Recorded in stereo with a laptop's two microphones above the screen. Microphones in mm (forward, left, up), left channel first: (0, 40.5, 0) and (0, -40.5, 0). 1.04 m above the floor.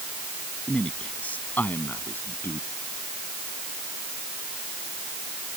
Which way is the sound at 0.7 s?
15° left (ahead or behind).